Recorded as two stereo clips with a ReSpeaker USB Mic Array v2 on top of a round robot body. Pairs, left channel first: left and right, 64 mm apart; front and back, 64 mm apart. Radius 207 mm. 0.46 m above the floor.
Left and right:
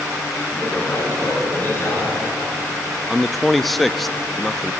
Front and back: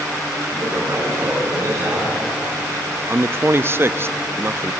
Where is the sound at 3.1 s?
175° left, 0.7 m.